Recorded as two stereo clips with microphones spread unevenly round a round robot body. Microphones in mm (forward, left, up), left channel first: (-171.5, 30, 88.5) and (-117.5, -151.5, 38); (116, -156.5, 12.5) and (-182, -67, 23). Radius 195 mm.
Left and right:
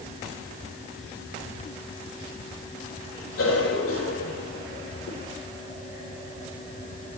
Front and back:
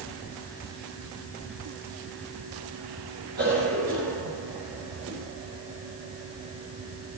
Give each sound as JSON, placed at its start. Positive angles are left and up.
{"t": 3.4, "sound": "a cough", "azimuth_deg": 100, "distance_m": 4.0}